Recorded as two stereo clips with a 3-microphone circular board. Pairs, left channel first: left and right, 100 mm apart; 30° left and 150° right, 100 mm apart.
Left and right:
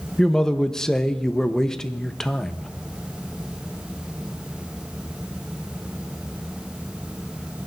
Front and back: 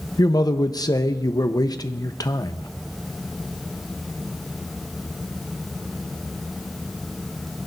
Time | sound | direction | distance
0.2 | a man speaking | 10° left | 0.8 m